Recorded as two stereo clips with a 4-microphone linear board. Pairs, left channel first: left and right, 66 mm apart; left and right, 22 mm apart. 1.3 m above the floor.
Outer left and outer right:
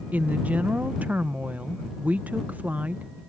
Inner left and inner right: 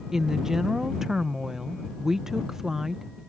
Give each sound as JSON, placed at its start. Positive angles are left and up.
{"t": 0.1, "sound": "a woman speaking", "side_deg": -25}